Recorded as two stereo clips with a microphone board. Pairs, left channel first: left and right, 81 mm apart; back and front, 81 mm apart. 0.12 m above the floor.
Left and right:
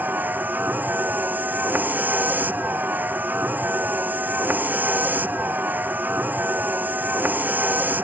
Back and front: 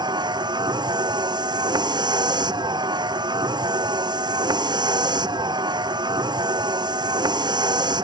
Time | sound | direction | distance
0.0 | a vehicle | 20° right | ?